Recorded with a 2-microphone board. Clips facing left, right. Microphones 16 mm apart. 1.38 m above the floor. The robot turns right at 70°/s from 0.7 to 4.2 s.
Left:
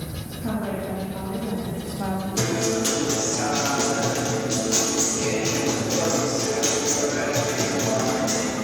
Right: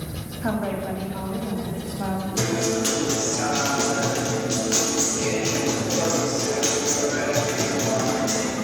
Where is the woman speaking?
55° right, 1.7 m; by 2.3 s 55° left, 1.7 m.